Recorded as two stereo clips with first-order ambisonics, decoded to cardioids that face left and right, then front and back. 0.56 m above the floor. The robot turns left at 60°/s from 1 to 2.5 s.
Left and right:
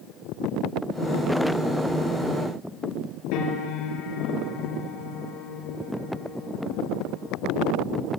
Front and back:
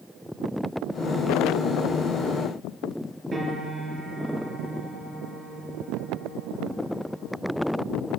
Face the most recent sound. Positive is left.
turn(degrees=105)